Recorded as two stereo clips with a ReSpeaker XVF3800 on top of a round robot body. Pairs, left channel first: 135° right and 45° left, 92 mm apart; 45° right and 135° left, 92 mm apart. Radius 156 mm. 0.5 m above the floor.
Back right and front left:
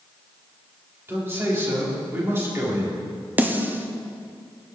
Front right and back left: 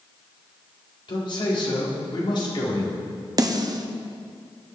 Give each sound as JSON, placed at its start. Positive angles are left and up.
{"t": 1.1, "sound": "a man speaking", "azimuth_deg": -20, "distance_m": 4.0}
{"t": 3.4, "sound": "a snare drum", "azimuth_deg": 110, "distance_m": 1.1}